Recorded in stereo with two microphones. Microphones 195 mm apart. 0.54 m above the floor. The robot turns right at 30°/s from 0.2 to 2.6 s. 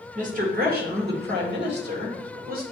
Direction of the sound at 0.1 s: 130° right.